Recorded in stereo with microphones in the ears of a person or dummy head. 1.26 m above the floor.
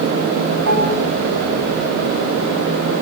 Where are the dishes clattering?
85° right, 7 m.